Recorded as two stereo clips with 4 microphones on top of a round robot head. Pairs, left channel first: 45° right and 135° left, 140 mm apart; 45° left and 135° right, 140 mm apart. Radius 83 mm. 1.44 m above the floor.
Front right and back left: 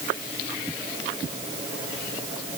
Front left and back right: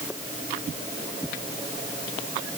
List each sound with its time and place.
Only background noise.